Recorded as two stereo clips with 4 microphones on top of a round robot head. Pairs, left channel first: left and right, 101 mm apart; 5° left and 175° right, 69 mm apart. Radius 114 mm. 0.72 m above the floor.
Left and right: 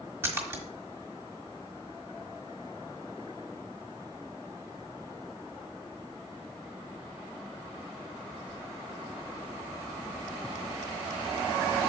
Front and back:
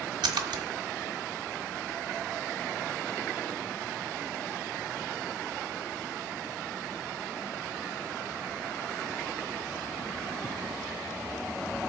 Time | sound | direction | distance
0.2 | a splash | 160° right | 1.5 m